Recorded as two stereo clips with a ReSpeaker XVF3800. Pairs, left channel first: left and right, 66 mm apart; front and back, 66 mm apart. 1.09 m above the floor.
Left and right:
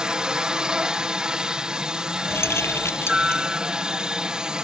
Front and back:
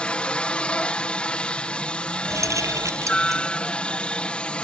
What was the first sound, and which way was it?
A helicopter, 35° right.